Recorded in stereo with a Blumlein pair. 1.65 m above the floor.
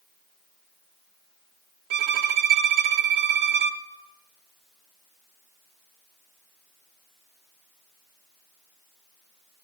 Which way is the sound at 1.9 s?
50° right.